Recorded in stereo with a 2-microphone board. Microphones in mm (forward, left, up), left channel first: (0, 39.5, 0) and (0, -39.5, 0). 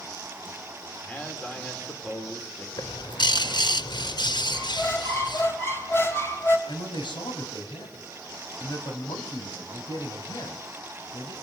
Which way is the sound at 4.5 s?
30° left (ahead or behind).